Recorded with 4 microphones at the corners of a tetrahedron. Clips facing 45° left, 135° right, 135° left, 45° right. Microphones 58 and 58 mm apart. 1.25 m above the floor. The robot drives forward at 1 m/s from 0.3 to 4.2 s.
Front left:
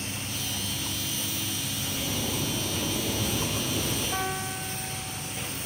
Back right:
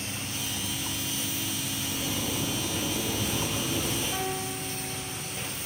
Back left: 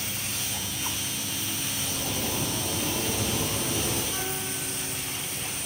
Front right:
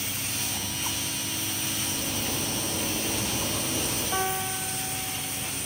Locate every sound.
1.8 s a zipper: 120° left, 6 m; by 4.0 s 135° left, 7.5 m
4.1 s a piano: 25° right, 1.0 m; by 5.6 s 30° right, 0.9 m